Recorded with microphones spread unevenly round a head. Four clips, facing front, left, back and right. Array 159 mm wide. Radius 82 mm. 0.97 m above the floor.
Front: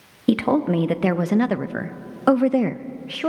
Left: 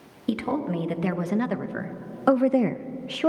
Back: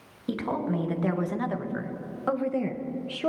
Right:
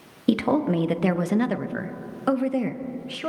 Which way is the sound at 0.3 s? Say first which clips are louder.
Right 5 dB, front 10 dB; 25° right.